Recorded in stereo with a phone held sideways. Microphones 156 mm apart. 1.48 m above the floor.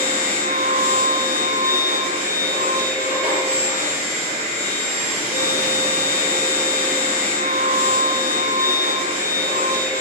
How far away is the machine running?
About 3 m.